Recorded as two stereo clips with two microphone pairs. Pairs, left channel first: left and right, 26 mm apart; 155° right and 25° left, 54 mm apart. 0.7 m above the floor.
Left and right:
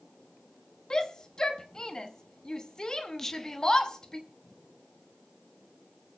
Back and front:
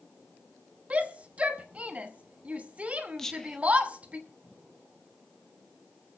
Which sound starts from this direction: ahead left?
A shout, at 0.9 s.